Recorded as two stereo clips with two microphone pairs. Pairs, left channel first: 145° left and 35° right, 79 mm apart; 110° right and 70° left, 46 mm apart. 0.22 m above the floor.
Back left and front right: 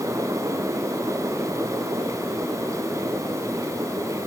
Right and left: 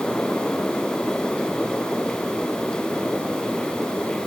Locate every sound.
Only background noise.